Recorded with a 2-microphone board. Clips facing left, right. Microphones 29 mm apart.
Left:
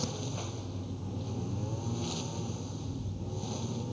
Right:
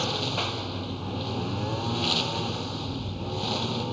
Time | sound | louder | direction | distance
0.0 | a lawn mower | right 10 dB | 65° right (ahead or behind) | ?